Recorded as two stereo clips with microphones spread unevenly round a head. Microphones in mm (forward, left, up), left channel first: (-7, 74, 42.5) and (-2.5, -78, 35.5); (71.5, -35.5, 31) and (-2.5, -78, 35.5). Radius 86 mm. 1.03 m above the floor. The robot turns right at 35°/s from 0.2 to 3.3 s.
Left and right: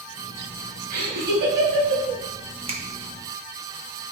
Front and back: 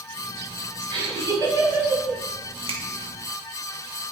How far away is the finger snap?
About 1.7 m.